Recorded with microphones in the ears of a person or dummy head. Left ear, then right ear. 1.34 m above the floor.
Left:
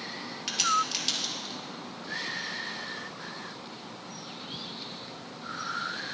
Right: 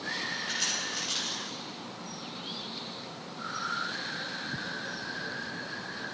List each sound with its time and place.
0.5 s a crack: 55° left (ahead or behind), 4 m